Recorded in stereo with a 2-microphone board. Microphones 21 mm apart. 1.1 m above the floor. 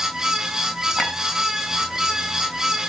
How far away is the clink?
About 3.5 m.